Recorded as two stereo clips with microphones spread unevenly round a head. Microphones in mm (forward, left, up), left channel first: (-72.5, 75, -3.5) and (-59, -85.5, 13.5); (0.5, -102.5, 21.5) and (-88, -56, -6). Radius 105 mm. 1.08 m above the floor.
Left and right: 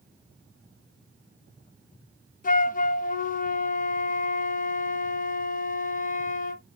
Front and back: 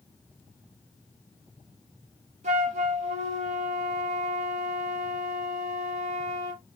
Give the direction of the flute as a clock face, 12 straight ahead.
8 o'clock.